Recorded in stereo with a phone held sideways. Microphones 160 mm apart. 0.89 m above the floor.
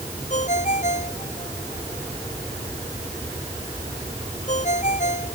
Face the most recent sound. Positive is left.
turn(degrees=50)  # may be behind; listen again after turning